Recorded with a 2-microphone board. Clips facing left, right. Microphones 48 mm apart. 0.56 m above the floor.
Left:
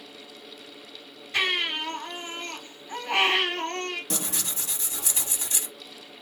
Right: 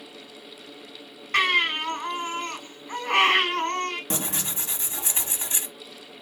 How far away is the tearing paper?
About 0.8 m.